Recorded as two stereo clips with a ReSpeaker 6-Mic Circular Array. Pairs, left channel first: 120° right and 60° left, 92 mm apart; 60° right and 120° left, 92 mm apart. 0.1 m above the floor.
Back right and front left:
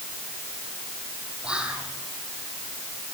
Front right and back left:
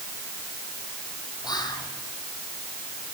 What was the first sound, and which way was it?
Whispering, 20° right.